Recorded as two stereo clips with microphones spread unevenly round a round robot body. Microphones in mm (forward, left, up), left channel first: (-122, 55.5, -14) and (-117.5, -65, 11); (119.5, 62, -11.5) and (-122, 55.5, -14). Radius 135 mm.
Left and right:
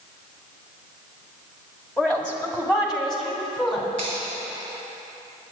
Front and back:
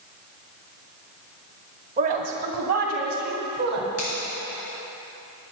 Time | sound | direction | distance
2.0 | a woman speaking | 155° left | 1.4 m
4.0 | a finger snap | 25° left | 4 m